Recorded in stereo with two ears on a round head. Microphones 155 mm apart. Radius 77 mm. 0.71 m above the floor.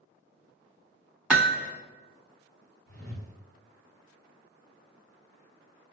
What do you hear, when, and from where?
1.3 s hammering: 5° right (ahead or behind), 1.3 m
2.9 s a whoosh: 60° right (ahead or behind), 1.6 m